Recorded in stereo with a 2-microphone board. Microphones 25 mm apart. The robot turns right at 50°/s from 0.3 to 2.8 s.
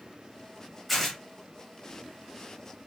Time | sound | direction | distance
0.9 | tearing paper | centre (ahead or behind) | 0.9 m